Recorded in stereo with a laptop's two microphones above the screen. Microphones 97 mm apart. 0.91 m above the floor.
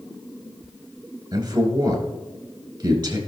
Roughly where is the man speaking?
Right.